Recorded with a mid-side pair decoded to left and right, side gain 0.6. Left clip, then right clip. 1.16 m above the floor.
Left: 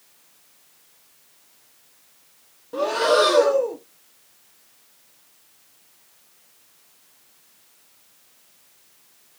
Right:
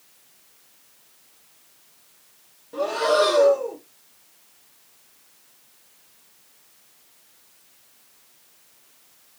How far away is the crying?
No crying in this recording.